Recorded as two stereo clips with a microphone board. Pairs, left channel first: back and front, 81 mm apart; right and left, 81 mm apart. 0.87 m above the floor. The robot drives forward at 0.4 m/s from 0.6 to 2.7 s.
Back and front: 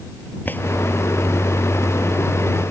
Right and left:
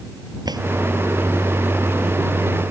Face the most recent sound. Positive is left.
turn(degrees=125)